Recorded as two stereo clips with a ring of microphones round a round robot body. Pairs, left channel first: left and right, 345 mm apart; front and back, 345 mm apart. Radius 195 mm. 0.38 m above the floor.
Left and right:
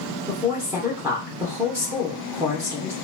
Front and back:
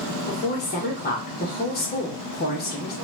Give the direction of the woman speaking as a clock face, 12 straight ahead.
1 o'clock.